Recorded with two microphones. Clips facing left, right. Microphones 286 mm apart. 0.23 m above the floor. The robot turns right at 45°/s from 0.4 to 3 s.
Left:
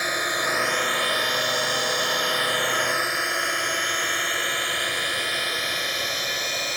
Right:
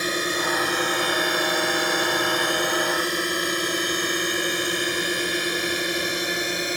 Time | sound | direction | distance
0.0 | a drone | 35° right (ahead or behind) | ?